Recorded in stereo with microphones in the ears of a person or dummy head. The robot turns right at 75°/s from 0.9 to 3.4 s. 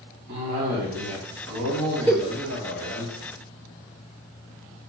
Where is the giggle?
5° left (ahead or behind), 2 m; by 2.3 s 25° left (ahead or behind), 2 m.